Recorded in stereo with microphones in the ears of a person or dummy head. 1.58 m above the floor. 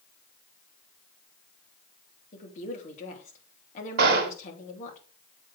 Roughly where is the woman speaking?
Left.